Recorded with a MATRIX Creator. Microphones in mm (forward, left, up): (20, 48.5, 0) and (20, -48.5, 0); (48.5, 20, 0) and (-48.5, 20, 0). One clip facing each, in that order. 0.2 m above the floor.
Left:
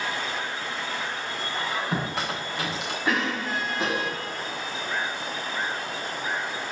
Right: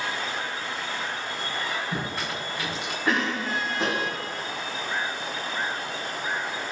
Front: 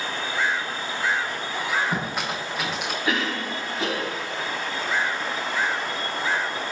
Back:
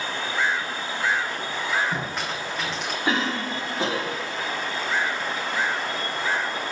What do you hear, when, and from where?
1.5 s a squeak: 90° left, 5.5 m
3.0 s a cough: 175° left, 1.6 m